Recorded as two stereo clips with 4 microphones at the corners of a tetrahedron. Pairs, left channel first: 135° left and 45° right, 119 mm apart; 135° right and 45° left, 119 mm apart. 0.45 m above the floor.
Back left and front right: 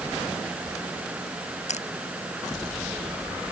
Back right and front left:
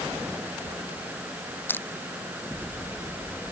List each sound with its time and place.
1.7 s crushing: 150° left